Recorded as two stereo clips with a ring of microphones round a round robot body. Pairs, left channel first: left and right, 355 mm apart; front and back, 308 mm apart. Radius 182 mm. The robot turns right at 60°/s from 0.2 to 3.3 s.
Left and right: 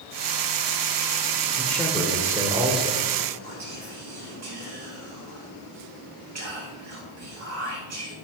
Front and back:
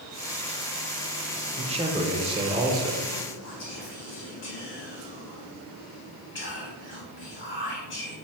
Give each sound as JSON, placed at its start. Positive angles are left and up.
{"t": 1.6, "sound": "a man speaking", "azimuth_deg": 160, "distance_m": 0.8}
{"t": 3.4, "sound": "whispering", "azimuth_deg": -50, "distance_m": 3.0}